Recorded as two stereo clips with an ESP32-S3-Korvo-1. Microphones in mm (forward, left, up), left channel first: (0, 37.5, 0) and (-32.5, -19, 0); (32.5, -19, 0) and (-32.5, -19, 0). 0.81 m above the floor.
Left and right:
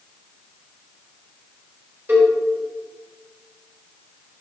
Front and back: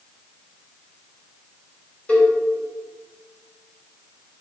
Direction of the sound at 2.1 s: 60° right.